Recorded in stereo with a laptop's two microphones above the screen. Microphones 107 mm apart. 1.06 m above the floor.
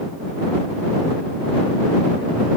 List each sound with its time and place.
Only background noise.